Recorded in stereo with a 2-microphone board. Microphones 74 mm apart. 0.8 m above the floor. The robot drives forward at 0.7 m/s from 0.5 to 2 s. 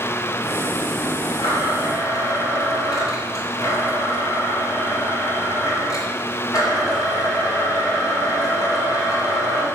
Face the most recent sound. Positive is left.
turn(degrees=55)  # may be behind; listen again after turning